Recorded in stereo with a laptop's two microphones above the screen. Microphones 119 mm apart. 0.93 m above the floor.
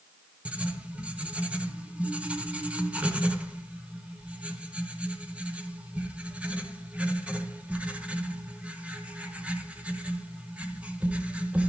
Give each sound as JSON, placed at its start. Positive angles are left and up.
{"t": 0.5, "sound": "writing", "side_deg": -10, "distance_m": 0.8}